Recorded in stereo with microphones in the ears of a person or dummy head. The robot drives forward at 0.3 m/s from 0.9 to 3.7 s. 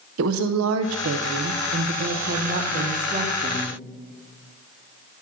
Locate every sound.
0.2 s a woman speaking: 80° right, 0.7 m; by 3.8 s 35° right (ahead or behind), 1.1 m